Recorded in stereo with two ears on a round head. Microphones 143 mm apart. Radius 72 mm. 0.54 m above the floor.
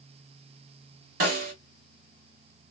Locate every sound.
1.2 s a snare drum: 60° right (ahead or behind), 1.2 m